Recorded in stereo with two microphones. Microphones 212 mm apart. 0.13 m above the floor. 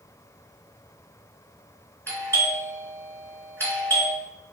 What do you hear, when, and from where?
2.1 s a doorbell: 10° left (ahead or behind), 1.7 m